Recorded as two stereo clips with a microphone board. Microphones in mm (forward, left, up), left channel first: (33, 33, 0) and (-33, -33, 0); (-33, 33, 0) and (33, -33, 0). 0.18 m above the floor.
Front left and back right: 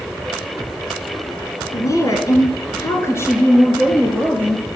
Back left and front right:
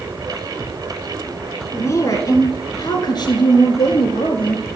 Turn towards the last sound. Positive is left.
turn(degrees=110)